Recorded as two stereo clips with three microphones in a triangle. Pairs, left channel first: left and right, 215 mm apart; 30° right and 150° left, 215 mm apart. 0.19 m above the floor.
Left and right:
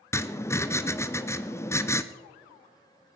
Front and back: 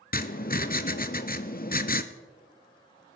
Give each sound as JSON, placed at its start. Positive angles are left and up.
{"t": 0.1, "sound": "writing", "azimuth_deg": 10, "distance_m": 0.7}